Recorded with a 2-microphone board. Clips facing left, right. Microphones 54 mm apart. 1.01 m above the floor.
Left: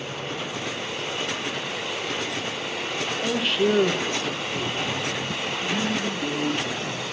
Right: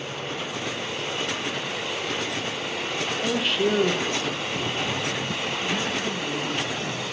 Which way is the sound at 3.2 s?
5° right (ahead or behind).